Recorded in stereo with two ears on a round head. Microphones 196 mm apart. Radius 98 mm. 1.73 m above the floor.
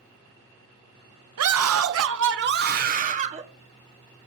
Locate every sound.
1.4 s a scream: 85° right, 1.3 m; by 3.4 s 30° right (ahead or behind), 1.5 m